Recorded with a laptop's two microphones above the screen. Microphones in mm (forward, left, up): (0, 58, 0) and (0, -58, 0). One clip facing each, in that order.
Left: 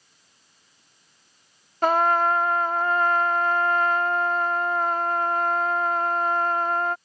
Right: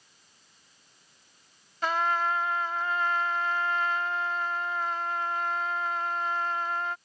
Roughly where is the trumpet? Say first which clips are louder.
Left 7 dB; left.